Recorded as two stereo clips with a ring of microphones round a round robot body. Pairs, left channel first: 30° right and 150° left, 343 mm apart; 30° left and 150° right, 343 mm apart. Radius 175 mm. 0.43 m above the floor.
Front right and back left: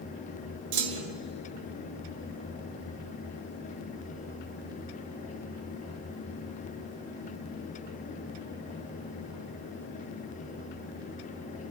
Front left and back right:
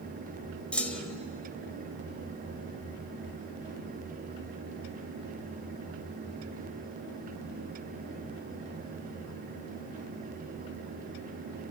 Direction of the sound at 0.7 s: 115° left.